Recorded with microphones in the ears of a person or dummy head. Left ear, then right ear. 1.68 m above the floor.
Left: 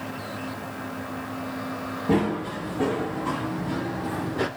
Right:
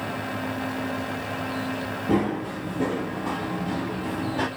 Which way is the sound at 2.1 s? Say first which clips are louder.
Left 1 dB; 5° left (ahead or behind).